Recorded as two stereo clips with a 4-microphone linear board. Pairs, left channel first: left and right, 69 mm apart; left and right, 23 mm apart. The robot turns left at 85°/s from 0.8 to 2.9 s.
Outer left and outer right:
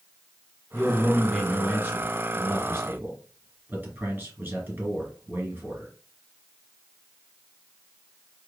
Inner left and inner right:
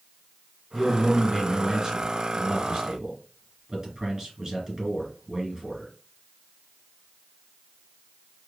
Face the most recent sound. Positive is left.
turn(degrees=-140)